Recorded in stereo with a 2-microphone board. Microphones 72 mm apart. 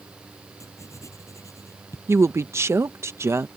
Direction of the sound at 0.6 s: 45° left (ahead or behind).